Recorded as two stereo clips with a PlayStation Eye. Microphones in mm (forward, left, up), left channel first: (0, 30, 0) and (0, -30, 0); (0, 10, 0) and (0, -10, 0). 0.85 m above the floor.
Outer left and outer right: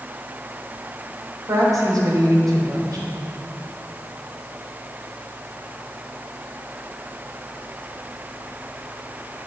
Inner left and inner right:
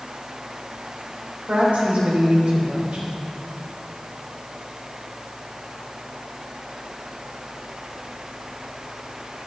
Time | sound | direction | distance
1.5 | a woman speaking | 80° right | 3.5 m